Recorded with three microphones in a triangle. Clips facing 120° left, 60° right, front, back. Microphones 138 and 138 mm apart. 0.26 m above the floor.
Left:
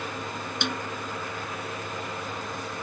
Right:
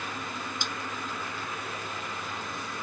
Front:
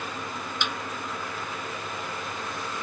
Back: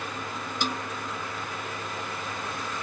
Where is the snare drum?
130° left.